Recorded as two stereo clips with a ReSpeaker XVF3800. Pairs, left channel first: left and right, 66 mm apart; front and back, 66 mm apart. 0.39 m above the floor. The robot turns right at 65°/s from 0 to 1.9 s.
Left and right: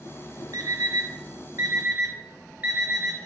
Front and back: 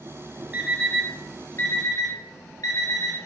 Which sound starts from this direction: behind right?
An alarm clock, at 0.5 s.